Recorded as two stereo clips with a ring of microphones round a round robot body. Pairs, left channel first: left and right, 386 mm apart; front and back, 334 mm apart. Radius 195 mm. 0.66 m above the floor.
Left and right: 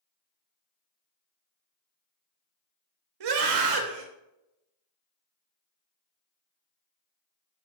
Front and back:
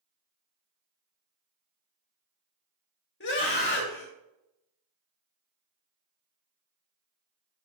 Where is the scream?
60° right, 2.5 m.